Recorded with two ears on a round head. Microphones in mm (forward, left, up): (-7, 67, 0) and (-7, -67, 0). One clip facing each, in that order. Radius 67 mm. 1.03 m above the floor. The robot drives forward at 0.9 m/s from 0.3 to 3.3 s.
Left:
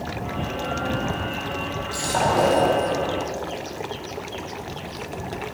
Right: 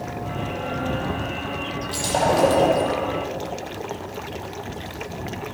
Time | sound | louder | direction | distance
1.9 | breaking glass | right 1 dB | 25° right (ahead or behind) | 6 m